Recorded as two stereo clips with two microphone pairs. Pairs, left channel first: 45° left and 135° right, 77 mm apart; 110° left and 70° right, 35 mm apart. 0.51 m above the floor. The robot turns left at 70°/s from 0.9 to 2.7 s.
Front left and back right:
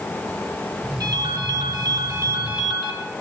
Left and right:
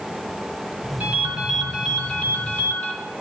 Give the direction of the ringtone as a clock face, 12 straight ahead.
4 o'clock.